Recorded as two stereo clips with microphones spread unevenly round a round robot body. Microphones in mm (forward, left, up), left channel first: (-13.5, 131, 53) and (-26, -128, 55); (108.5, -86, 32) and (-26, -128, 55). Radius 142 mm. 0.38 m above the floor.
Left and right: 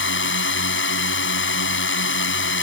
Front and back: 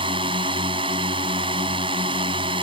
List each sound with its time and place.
0.0 s a drone: 130° left